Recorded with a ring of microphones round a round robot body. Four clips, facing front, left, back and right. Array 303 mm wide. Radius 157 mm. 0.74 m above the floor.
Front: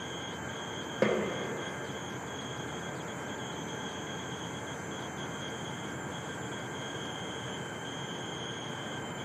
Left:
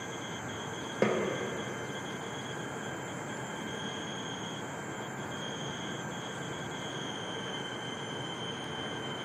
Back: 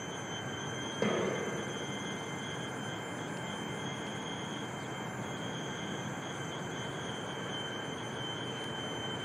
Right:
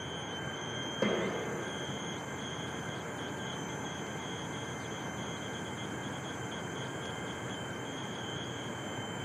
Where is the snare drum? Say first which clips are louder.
Left 3 dB, front 4 dB; 45° left, 1.0 m.